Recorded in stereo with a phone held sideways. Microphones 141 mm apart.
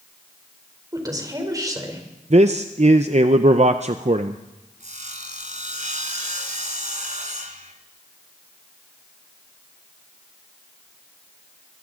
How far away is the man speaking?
About 0.6 m.